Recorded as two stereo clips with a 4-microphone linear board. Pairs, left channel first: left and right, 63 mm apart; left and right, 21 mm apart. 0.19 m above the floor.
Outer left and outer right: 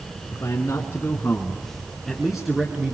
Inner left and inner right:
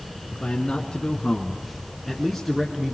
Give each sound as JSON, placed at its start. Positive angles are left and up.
{"t": 0.3, "sound": "a man speaking", "side_deg": 55, "distance_m": 2.0}